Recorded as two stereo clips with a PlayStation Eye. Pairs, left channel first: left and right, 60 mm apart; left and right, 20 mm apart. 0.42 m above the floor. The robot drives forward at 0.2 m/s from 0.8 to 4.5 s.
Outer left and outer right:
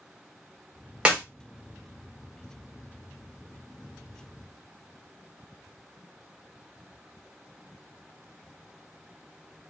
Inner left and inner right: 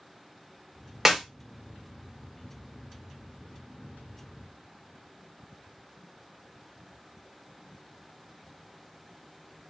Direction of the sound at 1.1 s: 15° right (ahead or behind).